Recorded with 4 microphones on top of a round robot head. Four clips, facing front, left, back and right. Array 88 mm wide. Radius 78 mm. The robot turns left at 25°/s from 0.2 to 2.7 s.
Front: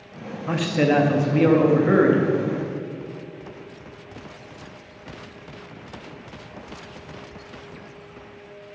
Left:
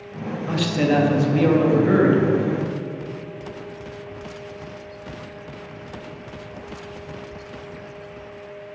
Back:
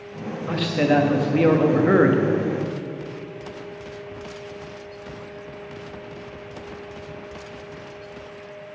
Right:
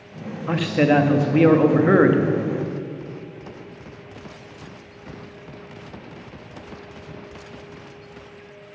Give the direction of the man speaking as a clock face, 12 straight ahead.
2 o'clock.